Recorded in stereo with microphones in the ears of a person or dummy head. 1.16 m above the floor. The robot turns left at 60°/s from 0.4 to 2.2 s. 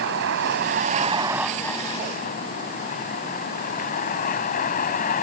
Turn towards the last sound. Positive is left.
turn(degrees=140)